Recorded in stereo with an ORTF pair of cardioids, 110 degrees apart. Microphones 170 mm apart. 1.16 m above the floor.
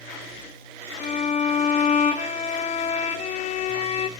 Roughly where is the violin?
Ahead left.